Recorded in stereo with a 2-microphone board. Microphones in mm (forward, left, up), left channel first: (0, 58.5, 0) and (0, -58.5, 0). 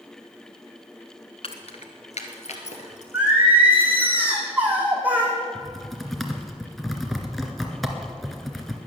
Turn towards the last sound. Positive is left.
turn(degrees=0)  # may be behind; listen again after turning